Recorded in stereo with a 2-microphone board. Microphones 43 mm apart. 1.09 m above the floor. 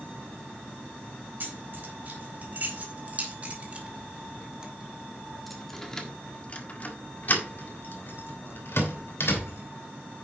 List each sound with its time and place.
1.4 s keys jangling: 50° right (ahead or behind), 4 m; by 10.2 s 80° left, 3.5 m